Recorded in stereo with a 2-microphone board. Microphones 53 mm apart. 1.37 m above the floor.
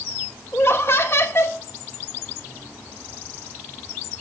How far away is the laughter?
About 1.5 m.